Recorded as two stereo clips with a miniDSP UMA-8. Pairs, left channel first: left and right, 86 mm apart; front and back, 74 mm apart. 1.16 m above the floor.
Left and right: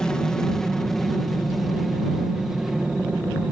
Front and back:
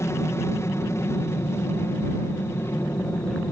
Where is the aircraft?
10° left; by 3.5 s 15° right.